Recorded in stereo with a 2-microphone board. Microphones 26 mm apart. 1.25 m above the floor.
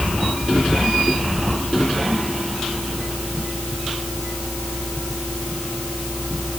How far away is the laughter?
No laughter in this recording.